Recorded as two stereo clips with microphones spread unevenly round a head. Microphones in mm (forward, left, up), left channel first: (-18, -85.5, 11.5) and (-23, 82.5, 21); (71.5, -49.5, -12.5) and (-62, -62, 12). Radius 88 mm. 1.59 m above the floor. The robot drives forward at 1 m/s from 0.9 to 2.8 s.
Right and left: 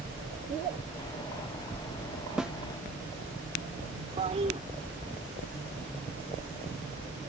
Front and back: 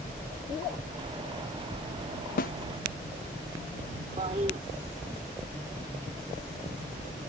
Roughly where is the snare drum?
Ahead.